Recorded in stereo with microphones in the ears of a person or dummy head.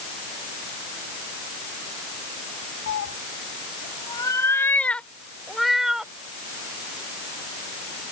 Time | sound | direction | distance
2.9 | a cat meowing | 60° left (ahead or behind) | ?